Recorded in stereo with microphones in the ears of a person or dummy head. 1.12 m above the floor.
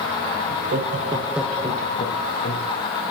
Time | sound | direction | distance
0.5 | laughter | 55° right (ahead or behind) | 1.6 m